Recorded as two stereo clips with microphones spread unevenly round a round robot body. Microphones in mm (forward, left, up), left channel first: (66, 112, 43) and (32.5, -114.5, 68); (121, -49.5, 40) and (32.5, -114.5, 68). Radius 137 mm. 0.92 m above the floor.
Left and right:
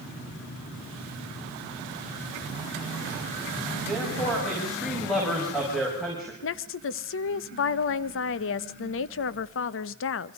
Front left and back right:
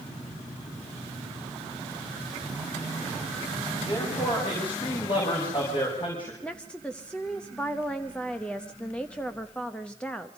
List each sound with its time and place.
3.9 s a man speaking: 5° right, 6 m
6.4 s a woman speaking: 115° left, 0.7 m